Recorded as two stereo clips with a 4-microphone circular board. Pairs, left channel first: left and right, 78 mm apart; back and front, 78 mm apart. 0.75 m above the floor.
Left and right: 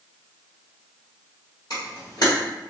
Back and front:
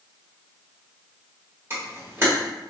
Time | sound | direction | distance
1.7 | a camera shutter | 60° left | 1.7 m